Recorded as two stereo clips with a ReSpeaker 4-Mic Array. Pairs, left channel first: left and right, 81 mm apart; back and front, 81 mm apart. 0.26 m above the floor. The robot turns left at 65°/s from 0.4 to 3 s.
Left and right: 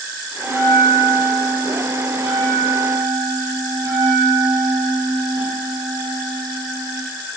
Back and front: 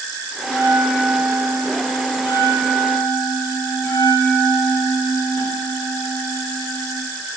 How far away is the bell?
About 8 m.